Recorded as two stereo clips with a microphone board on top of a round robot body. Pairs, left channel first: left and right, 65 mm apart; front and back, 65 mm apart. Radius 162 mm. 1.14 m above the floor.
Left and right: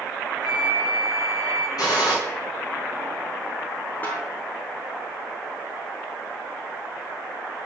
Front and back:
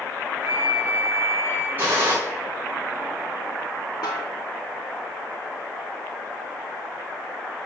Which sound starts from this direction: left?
A flute, at 0.4 s.